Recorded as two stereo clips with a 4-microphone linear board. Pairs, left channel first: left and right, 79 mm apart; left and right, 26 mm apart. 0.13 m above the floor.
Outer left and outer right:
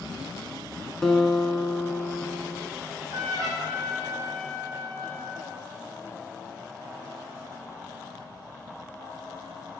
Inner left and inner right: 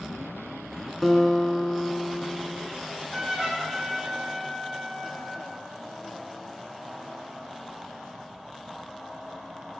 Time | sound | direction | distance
1.0 | a guitar | 5° left (ahead or behind) | 0.8 m
2.8 | a trumpet | 45° right (ahead or behind) | 2.5 m